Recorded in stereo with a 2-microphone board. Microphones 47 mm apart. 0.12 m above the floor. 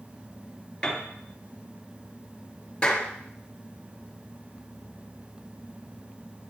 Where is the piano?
15° left (ahead or behind), 1.9 m.